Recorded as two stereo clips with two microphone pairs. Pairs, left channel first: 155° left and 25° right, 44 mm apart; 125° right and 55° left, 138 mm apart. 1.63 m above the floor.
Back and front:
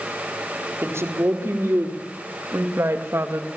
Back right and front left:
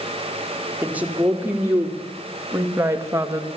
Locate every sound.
0.8 s a woman speaking: 25° right, 5 m; by 3.5 s 10° right, 2.5 m